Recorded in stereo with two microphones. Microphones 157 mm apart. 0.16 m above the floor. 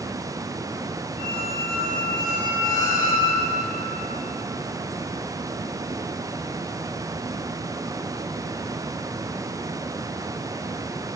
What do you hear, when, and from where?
1.2 s a squeak: 55° left (ahead or behind), 4.5 m